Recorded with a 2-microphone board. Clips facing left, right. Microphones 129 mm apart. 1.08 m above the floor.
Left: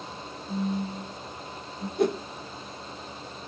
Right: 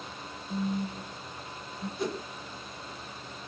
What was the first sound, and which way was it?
A phone buzzing, 80° left.